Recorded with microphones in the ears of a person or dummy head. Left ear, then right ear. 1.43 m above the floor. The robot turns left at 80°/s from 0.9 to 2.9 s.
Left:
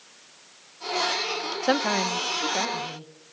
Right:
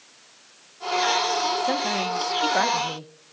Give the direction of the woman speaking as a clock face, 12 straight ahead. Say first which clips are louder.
Left 1 dB; 11 o'clock.